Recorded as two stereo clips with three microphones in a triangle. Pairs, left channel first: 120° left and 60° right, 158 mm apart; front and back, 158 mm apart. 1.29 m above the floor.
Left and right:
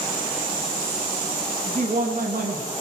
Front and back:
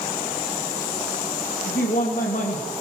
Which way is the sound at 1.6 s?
20° right.